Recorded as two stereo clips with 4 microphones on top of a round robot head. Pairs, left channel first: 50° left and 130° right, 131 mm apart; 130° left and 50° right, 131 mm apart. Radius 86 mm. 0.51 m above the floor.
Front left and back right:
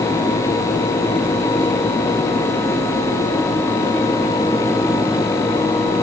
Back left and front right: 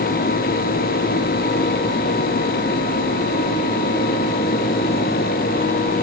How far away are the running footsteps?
I don't hear running footsteps.